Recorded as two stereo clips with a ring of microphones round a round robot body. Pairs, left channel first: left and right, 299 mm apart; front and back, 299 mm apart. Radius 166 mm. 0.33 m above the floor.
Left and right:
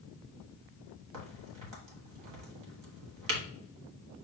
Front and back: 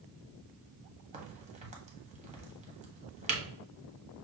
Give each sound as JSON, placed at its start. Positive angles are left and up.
{"t": 1.1, "sound": "a crack", "azimuth_deg": -110, "distance_m": 1.3}